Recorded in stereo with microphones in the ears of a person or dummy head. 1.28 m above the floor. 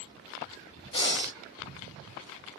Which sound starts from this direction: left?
Breathing, at 0.9 s.